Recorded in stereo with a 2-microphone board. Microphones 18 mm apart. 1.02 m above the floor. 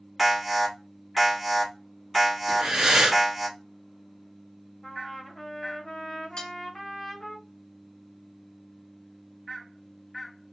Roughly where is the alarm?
Centre.